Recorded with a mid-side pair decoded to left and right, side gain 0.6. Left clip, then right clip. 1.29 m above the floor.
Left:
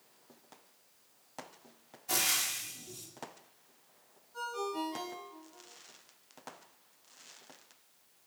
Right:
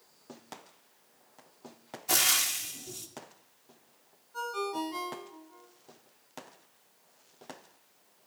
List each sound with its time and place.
2.1 s frying: 35° right, 2 m
4.3 s a ringtone: 35° right, 4.5 m